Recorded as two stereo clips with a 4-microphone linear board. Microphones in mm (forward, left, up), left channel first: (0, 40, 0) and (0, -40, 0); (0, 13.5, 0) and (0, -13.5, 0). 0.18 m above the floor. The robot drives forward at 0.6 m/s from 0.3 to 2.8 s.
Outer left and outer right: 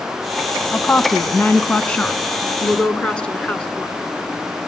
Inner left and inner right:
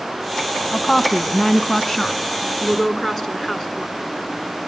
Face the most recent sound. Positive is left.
turn(degrees=10)  # may be behind; listen again after turning